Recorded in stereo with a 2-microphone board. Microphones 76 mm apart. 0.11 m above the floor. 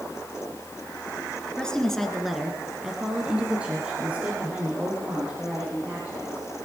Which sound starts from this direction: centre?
A woman speaking, at 1.6 s.